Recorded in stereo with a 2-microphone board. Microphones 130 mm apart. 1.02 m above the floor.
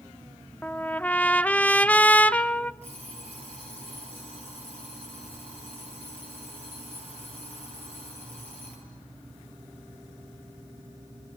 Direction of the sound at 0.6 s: 10° left (ahead or behind).